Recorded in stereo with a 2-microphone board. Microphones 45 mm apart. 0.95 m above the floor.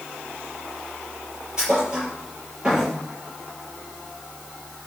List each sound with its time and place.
1.6 s a thud: 20° right (ahead or behind), 6 m